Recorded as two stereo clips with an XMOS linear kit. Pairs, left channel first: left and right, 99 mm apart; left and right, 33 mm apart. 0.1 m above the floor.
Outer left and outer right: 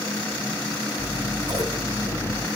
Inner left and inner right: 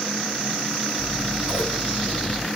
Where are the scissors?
35° right (ahead or behind), 2.5 m.